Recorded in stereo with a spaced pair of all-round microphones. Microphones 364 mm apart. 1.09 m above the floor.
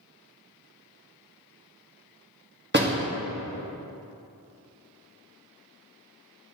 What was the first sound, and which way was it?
A door slam, 30° right (ahead or behind).